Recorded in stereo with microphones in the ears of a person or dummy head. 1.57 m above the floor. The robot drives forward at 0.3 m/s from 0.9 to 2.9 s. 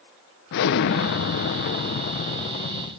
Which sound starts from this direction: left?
An explosion, at 0.5 s.